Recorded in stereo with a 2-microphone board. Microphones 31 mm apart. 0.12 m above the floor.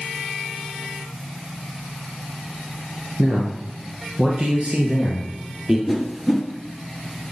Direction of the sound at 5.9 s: 10° right (ahead or behind).